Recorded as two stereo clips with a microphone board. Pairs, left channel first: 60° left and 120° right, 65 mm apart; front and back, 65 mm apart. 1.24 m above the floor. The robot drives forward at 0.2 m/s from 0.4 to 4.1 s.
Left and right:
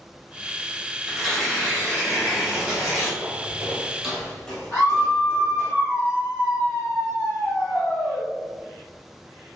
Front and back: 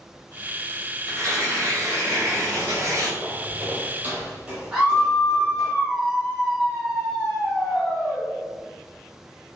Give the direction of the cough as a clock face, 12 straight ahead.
No cough in this recording.